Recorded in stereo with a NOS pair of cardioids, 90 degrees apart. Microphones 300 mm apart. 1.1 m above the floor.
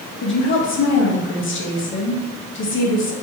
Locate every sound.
0.2 s a woman speaking: 40° left, 1.0 m